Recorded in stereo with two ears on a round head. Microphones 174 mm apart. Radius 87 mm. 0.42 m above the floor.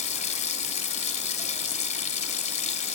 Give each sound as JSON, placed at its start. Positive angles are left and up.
{"t": 0.0, "sound": "running water", "side_deg": 35, "distance_m": 0.9}